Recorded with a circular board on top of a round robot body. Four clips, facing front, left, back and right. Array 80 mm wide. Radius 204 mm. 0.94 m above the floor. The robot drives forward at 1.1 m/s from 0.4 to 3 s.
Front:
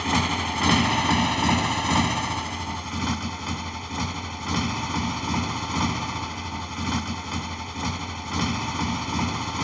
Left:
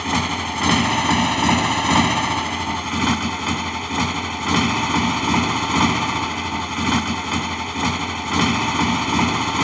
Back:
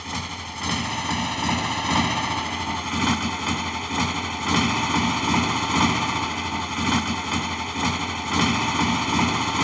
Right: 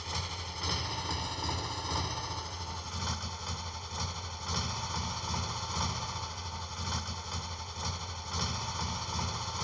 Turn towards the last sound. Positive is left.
turn(degrees=120)